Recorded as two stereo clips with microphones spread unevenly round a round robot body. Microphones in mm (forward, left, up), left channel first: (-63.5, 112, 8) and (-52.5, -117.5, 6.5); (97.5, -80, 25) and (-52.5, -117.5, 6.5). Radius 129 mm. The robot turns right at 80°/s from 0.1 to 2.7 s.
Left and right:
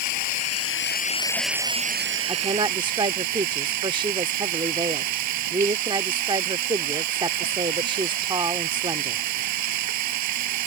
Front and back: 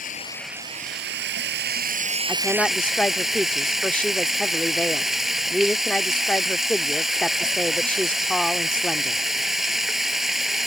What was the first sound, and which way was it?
Running water, 75° left.